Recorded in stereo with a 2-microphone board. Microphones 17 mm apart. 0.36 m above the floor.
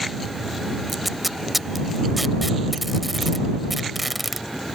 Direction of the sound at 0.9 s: Centre (ahead or behind).